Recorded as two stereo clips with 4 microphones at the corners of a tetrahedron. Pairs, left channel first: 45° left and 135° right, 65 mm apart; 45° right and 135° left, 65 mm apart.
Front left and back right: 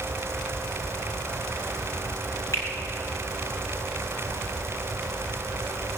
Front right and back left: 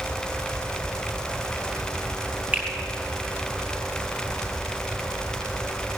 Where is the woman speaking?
I don't hear a woman speaking.